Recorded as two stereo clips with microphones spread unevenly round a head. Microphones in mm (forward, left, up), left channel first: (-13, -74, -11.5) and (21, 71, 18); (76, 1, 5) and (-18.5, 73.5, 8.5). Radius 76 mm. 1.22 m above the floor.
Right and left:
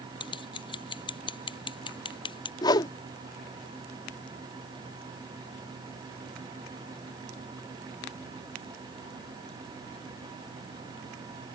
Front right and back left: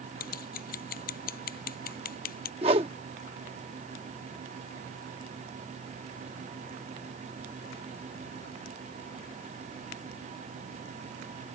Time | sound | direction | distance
0.2 | scissors | 40° right | ?
2.6 | a whoosh | 175° right | ?